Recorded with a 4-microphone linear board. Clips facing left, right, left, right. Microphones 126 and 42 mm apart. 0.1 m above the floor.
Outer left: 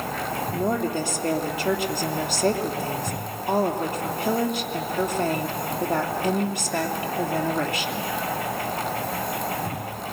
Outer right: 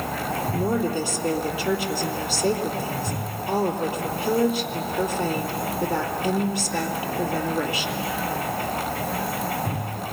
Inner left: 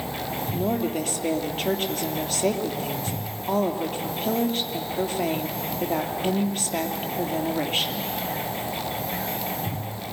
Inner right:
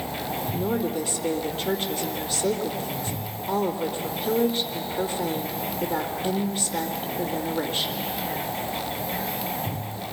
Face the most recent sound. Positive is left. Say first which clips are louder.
# even, inner left 1 dB
turn(degrees=55)  # may be behind; listen again after turning